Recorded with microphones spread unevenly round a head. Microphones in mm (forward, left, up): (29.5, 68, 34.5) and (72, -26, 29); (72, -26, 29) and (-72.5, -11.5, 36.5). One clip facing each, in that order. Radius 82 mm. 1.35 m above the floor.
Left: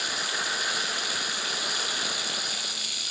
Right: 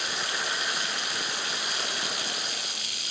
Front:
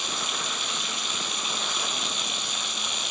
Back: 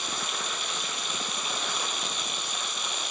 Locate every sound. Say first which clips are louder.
0.0 s running water: even, front 1 dB; 25° left